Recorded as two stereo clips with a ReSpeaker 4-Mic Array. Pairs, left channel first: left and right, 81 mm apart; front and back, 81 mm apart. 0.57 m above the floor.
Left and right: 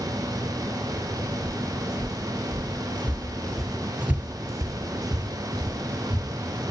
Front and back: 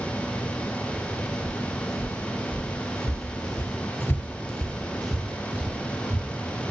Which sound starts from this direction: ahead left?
Footsteps, at 1.4 s.